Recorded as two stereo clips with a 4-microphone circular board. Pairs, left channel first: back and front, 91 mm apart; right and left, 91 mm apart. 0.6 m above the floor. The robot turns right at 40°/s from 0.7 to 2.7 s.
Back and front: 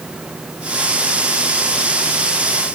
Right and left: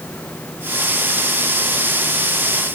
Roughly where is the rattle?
No rattle in this recording.